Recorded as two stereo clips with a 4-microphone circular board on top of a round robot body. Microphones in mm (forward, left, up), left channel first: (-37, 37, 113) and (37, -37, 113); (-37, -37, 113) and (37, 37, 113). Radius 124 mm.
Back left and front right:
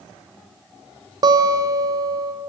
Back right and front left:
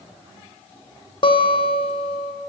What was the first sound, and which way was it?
A guitar, 95° right.